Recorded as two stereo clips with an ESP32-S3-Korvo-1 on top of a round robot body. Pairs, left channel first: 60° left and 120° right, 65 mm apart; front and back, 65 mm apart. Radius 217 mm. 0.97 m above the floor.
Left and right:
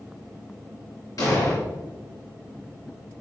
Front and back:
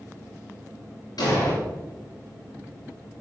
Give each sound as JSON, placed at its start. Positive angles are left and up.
{"t": 1.2, "sound": "an explosion", "azimuth_deg": 25, "distance_m": 4.0}